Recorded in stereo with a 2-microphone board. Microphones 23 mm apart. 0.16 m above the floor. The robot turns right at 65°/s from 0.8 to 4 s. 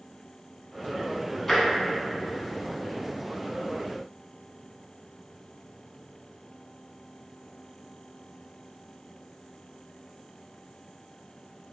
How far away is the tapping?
About 0.7 m.